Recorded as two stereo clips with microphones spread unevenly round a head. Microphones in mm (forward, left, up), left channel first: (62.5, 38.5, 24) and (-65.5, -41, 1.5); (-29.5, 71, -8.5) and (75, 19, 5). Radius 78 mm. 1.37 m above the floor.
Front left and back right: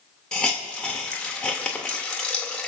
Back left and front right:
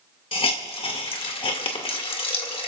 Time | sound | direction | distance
0.3 | a hiss | 115° left | 2 m